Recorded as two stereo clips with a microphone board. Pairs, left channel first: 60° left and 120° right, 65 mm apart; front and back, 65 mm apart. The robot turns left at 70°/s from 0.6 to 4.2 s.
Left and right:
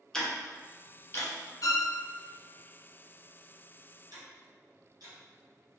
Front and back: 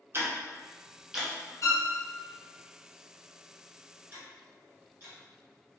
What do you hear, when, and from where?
0.1 s ticking: 140° left, 0.6 m; by 1.3 s 90° left, 0.6 m
1.6 s a violin: 40° left, 0.6 m; by 1.9 s 15° left, 0.6 m
4.1 s ticking: 120° right, 1.2 m; by 5.2 s 125° right, 1.2 m